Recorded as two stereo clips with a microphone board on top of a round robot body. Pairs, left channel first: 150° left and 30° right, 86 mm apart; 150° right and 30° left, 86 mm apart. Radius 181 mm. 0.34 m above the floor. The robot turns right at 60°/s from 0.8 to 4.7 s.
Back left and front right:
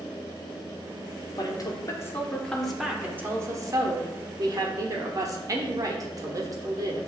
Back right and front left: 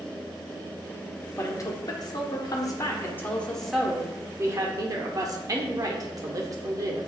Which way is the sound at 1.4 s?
160° left.